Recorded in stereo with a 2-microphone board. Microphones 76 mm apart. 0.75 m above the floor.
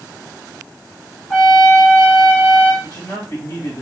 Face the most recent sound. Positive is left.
turn(degrees=50)  # may be behind; listen again after turning